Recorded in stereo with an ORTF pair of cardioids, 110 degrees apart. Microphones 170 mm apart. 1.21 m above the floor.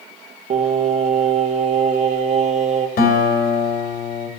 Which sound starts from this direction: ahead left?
A guitar, at 3.0 s.